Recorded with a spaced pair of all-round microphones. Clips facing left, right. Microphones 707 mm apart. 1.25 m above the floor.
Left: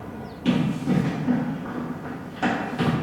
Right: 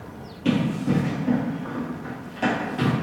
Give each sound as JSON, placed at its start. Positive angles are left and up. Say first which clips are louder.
{"t": 0.5, "sound": "running footsteps", "louder": "even", "side_deg": -5, "distance_m": 1.6}